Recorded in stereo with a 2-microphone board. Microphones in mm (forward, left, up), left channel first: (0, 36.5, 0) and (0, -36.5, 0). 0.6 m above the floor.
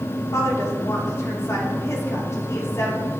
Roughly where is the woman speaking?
Left.